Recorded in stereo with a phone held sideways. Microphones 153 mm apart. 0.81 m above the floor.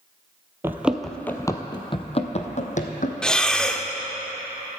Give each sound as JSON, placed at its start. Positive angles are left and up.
{"t": 0.6, "sound": "running footsteps", "side_deg": -15, "distance_m": 0.8}
{"t": 3.2, "sound": "breathing", "side_deg": 5, "distance_m": 0.7}